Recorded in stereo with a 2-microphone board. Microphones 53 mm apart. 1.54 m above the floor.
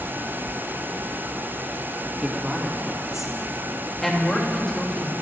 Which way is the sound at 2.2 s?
20° right (ahead or behind).